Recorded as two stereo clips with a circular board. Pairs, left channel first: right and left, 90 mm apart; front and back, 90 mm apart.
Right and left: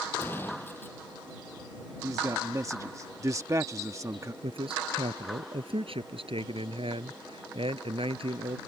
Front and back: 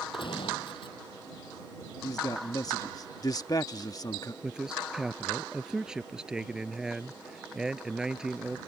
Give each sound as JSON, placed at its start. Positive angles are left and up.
{"t": 0.1, "sound": "a gunshot", "azimuth_deg": -20}
{"t": 2.0, "sound": "a man speaking", "azimuth_deg": 40}
{"t": 4.4, "sound": "a man speaking", "azimuth_deg": 100}